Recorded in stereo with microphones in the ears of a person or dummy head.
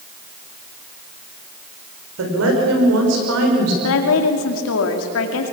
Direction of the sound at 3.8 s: 80° left.